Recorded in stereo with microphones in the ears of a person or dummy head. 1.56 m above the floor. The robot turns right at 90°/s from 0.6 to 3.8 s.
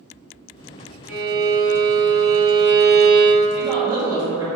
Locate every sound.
1.1 s a violin: 175° right, 0.7 m; by 3.5 s 40° left, 0.7 m
3.6 s a woman speaking: 40° right (ahead or behind), 1.1 m; by 4.5 s 20° right (ahead or behind), 1.1 m